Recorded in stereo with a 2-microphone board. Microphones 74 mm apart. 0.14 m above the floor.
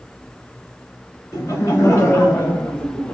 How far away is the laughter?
About 1.5 m.